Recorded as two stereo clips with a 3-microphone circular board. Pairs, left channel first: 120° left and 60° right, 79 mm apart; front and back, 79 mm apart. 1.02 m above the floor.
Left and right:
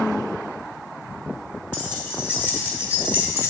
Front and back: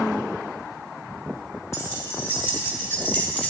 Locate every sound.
1.7 s keys jangling: 60° left, 2 m; by 3.5 s 70° left, 1.3 m